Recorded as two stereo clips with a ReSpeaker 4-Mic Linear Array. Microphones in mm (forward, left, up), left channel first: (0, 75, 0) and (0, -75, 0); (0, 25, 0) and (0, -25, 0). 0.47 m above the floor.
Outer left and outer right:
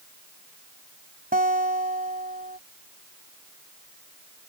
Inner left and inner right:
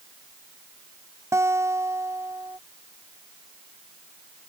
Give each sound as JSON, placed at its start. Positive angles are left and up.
{"t": 1.3, "sound": "a guitar", "side_deg": -80}